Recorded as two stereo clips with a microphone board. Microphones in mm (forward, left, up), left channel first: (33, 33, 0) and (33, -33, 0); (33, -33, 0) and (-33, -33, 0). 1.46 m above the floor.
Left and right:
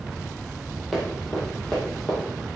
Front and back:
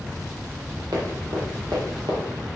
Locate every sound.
0.9 s running footsteps: 175° left, 3 m; by 2.2 s 165° left, 4.5 m